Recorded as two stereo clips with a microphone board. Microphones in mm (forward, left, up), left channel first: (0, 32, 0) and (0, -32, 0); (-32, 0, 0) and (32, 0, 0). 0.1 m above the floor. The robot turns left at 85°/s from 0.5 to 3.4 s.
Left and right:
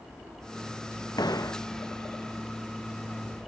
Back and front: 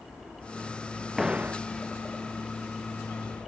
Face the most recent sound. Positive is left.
turn(degrees=-100)